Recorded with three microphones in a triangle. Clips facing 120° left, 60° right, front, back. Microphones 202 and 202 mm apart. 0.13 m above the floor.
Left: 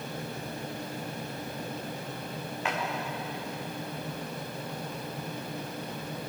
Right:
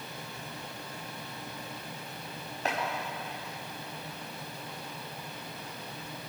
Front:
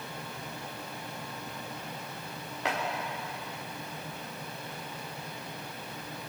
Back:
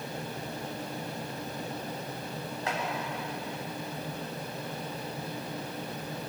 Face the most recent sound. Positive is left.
turn(degrees=-10)